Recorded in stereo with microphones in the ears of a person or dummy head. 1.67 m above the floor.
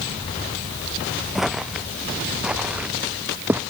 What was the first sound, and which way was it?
Footsteps, centre (ahead or behind).